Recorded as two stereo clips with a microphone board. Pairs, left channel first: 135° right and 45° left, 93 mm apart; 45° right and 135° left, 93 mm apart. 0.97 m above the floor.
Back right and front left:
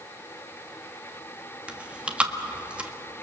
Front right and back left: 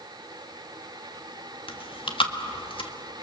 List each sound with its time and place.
1.7 s chewing: 30° right, 1.6 m